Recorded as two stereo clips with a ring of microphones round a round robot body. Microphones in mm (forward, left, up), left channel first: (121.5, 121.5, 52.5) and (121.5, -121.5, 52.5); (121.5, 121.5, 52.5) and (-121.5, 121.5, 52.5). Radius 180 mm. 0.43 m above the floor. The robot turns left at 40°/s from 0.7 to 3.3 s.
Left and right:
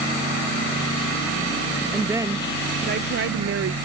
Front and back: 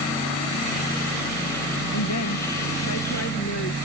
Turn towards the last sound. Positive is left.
turn(degrees=-60)